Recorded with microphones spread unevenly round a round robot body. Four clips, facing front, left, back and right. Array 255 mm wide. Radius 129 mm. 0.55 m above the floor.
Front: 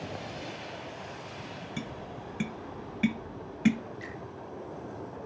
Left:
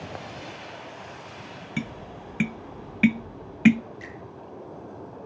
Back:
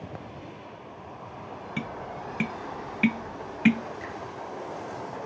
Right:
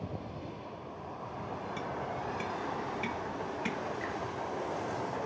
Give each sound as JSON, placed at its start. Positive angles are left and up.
{"t": 1.8, "sound": "tapping", "azimuth_deg": 100, "distance_m": 0.5}
{"t": 4.0, "sound": "a finger snap", "azimuth_deg": 170, "distance_m": 7.5}